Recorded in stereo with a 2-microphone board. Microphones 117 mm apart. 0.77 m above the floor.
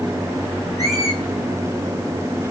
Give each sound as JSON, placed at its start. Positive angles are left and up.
{"t": 0.8, "sound": "a squeak", "side_deg": -35, "distance_m": 3.5}